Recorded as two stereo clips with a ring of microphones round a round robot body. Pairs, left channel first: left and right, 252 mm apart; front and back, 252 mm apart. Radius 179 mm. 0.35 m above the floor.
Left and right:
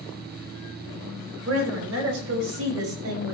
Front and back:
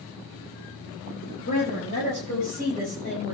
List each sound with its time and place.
1.4 s a woman speaking: 70° right, 5.5 m